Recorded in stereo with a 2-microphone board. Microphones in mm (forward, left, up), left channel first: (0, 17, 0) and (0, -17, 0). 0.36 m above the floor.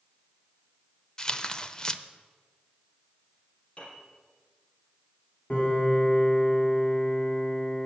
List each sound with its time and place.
1.2 s tearing paper: 25° left (ahead or behind), 0.6 m
3.8 s a piano: 40° left (ahead or behind), 5 m
5.5 s a piano: 50° left (ahead or behind), 4 m